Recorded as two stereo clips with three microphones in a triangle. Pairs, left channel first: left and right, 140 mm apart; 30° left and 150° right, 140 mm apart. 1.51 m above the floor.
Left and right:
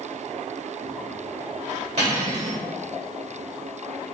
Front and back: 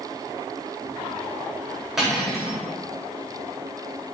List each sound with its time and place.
2.0 s cutlery clinking: 65° right, 2 m